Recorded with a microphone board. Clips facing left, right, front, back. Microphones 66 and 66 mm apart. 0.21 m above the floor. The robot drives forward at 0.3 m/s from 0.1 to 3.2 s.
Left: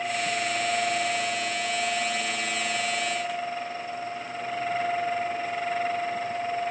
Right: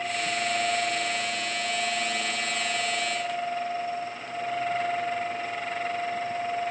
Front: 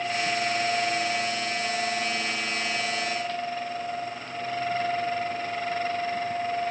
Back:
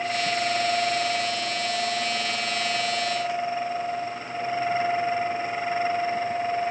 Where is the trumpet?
I don't hear a trumpet.